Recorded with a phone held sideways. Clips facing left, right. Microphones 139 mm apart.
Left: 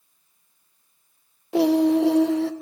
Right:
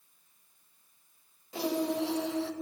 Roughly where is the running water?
I don't hear running water.